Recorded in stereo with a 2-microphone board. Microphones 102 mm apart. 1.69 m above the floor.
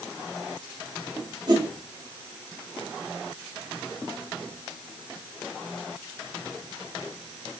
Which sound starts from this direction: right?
A whoosh, at 1.5 s.